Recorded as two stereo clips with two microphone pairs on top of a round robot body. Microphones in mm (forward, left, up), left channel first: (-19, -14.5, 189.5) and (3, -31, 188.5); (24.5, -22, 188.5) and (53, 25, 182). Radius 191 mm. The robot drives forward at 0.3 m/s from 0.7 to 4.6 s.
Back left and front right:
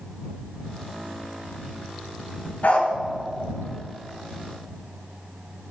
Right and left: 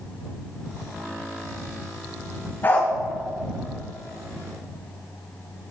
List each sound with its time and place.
2.6 s a dog barking: straight behind, 2.5 m